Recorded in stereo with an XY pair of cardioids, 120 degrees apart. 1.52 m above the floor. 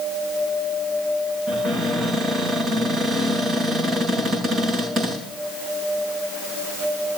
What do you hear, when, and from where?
1.5 s a cupboard door: 50° right, 5.5 m